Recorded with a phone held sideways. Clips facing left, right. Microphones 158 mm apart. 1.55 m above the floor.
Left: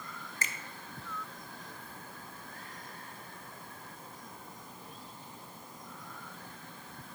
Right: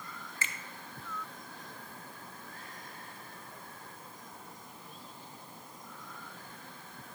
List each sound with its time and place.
0.4 s a finger snap: 40° left (ahead or behind), 1.1 m